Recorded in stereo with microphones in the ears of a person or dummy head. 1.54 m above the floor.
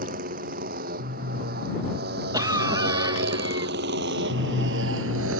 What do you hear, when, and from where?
0.0 s a motorcycle: 50° right (ahead or behind); by 5.4 s 80° right
2.3 s a cough: 20° right (ahead or behind)